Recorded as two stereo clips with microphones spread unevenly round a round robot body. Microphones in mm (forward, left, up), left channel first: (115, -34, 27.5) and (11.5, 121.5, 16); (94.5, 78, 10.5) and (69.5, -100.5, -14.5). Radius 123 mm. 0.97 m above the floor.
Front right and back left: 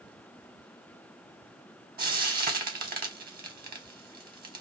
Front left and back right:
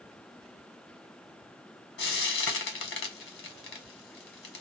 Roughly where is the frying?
Left.